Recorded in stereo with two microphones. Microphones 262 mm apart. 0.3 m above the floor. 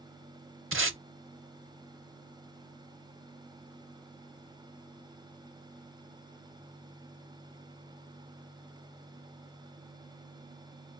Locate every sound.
0.7 s tape being pulled: 50° right (ahead or behind), 0.7 m